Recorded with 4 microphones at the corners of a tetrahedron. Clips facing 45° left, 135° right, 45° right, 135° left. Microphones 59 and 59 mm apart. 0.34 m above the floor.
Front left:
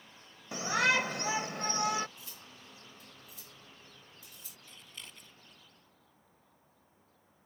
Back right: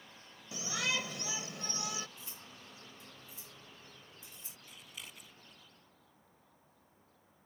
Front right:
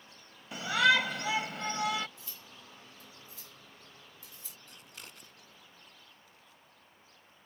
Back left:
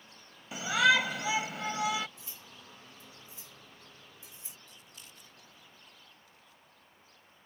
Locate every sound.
0.5 s a shout: 50° left
2.2 s cutlery clinking: 175° right
4.7 s scissors: 50° right